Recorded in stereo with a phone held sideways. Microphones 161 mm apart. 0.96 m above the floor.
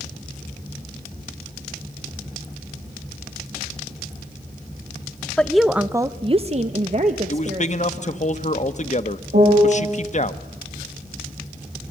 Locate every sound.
5.4 s a woman speaking: 5° left (ahead or behind), 1.0 m; by 8.2 s 40° right (ahead or behind), 2 m
7.3 s a man speaking: 45° left (ahead or behind), 1.0 m
9.3 s a piano: 75° right (ahead or behind), 7.5 m